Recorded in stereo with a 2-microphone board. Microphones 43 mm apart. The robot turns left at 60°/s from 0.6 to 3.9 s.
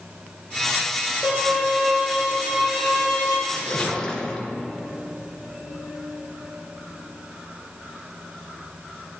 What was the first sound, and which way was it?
A violin, 25° left.